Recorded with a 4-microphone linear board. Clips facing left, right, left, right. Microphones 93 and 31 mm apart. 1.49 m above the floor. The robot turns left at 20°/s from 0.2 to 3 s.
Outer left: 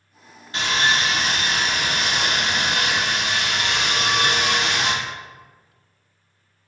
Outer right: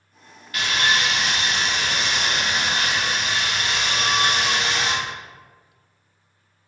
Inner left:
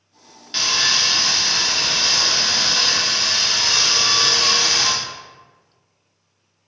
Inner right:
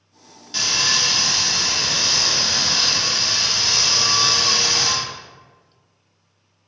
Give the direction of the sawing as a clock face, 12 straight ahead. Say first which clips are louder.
Outer left 1 dB, inner left 1 dB; 7 o'clock.